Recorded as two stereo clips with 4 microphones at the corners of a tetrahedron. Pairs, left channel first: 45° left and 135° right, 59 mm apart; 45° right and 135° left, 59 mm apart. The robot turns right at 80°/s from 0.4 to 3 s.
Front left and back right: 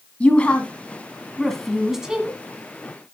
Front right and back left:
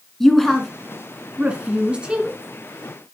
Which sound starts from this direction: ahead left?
A woman speaking, at 0.2 s.